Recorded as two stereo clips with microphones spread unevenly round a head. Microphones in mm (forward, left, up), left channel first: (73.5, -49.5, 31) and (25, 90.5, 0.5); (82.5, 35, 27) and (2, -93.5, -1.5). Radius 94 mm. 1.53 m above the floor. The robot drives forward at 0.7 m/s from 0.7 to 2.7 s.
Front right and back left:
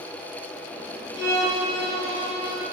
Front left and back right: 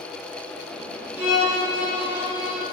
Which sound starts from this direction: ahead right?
A violin, at 1.2 s.